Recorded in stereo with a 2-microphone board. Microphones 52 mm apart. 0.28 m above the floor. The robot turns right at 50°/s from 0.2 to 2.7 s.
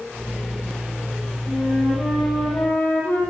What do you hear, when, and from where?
1.5 s a flute: 30° right, 9 m; by 3.2 s 35° left, 9 m